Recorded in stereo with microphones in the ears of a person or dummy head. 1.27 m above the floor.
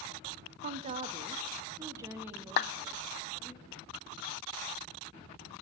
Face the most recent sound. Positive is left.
turn(degrees=50)  # may be behind; listen again after turning